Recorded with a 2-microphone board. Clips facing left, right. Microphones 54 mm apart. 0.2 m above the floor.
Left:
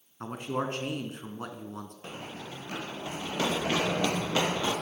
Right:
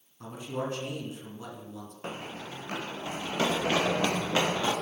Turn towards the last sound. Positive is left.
turn(degrees=-25)  # may be behind; listen again after turning